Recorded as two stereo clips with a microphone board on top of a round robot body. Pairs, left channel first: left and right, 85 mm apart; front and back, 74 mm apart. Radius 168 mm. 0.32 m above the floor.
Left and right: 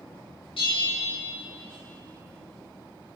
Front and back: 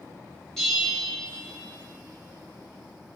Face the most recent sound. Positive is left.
turn(degrees=85)